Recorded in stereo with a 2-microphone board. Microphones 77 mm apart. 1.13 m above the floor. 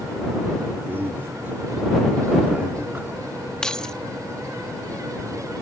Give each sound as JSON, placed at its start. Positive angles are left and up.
{"t": 0.9, "sound": "a man speaking", "side_deg": -30}
{"t": 3.6, "sound": "keys jangling", "side_deg": 10}